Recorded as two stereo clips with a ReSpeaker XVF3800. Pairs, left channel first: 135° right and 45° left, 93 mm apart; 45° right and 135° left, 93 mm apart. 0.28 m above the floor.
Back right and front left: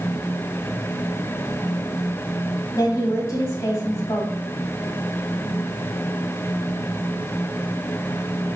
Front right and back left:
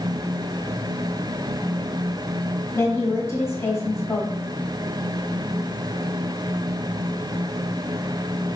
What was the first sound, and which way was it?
A woman speaking, 100° right.